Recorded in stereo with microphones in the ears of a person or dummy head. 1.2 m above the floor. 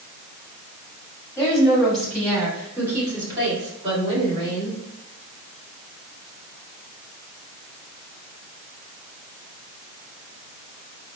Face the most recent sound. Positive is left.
turn(degrees=-35)  # may be behind; listen again after turning